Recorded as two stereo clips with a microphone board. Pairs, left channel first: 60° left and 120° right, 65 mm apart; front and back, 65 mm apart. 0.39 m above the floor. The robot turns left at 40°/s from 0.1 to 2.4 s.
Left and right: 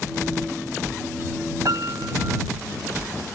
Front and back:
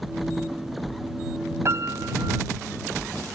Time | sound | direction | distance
1.6 | a piano | 140° right | ?